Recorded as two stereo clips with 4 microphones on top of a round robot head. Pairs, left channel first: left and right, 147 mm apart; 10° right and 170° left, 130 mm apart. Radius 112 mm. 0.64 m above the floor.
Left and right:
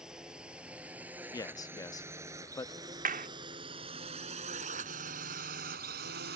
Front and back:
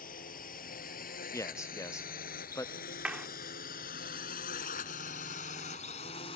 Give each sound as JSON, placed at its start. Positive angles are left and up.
{"t": 0.0, "sound": "a drone", "azimuth_deg": -5}
{"t": 1.3, "sound": "a man speaking", "azimuth_deg": 45}
{"t": 3.0, "sound": "a clap", "azimuth_deg": -110}